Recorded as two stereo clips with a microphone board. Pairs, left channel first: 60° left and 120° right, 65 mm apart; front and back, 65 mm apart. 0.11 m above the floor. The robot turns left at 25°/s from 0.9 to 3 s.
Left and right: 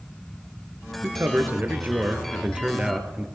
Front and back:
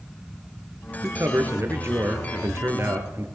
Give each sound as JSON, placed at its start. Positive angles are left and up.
{"t": 1.0, "sound": "a man speaking", "azimuth_deg": -150, "distance_m": 1.4}